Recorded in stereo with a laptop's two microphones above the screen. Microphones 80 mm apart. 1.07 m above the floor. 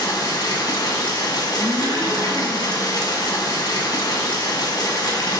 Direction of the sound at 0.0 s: 50° left (ahead or behind).